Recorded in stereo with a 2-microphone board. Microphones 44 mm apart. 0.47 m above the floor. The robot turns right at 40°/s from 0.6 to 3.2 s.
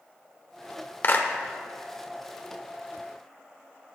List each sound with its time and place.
1.0 s a clap: 50° left (ahead or behind), 0.8 m; by 1.3 s 55° left (ahead or behind), 0.8 m